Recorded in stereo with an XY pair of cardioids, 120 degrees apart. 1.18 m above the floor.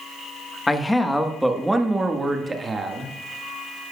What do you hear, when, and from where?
0.7 s a man speaking: 15° left, 1.3 m; by 3.1 s 35° right, 1.9 m